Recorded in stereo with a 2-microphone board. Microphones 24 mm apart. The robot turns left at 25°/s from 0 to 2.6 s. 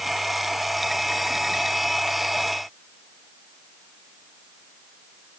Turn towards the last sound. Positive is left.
No sound to turn to.